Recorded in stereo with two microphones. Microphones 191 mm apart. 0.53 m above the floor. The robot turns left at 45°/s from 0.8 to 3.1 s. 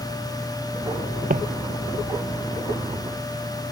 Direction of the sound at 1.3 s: 50° right (ahead or behind).